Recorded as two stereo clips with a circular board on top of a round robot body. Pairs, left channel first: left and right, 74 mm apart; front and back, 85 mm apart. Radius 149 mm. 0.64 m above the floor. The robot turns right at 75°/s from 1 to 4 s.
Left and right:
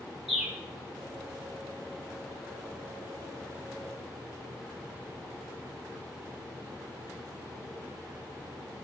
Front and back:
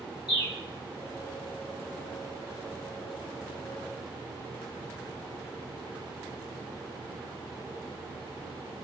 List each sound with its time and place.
0.3 s a bird: straight ahead, 1.2 m